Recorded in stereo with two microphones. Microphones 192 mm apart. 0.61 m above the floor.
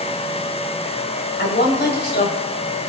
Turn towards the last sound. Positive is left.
turn(degrees=75)  # may be behind; listen again after turning